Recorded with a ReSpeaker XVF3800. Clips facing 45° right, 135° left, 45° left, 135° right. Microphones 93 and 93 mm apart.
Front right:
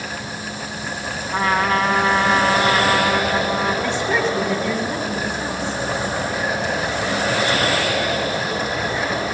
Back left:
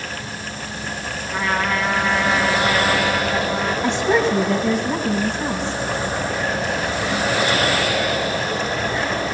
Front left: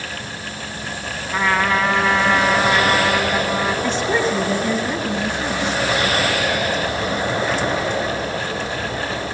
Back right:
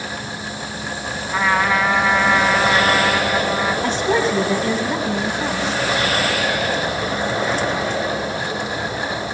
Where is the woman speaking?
155° right, 3 m.